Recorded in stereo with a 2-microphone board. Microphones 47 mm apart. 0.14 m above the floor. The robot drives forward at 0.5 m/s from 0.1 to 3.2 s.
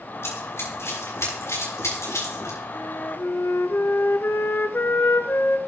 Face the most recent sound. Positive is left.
turn(degrees=50)  # may be behind; listen again after turning